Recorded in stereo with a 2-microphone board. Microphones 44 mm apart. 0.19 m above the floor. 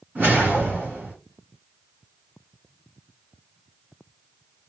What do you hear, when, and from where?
0.1 s a whoosh: 45° right (ahead or behind), 2.5 m